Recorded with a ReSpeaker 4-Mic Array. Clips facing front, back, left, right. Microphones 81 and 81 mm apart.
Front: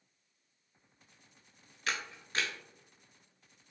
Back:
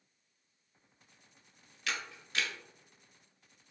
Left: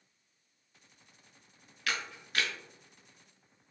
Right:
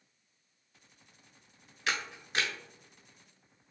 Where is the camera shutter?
35° right, 0.7 m.